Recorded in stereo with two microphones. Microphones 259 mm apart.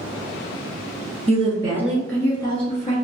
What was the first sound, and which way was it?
A woman speaking, 25° right (ahead or behind).